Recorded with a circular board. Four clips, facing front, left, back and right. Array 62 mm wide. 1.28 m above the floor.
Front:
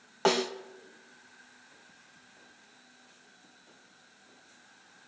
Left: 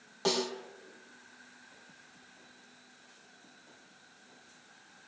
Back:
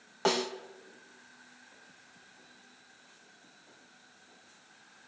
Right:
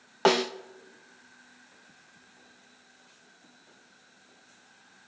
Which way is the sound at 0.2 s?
80° right.